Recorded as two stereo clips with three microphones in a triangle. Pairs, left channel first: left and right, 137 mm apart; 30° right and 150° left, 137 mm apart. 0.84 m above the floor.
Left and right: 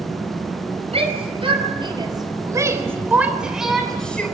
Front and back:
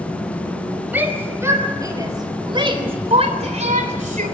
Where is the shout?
135° right, 5 m; by 4.3 s 170° left, 3.5 m.